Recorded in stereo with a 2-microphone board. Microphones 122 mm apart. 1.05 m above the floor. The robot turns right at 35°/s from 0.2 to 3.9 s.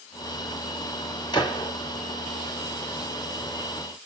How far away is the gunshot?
About 1.5 m.